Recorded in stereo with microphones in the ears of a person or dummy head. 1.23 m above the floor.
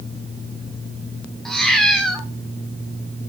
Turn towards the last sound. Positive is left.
turn(degrees=0)  # may be behind; listen again after turning